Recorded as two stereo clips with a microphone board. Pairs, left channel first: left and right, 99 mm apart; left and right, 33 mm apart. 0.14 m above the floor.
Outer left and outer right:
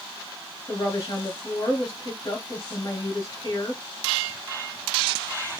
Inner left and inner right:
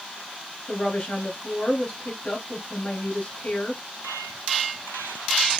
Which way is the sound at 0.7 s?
35° left (ahead or behind).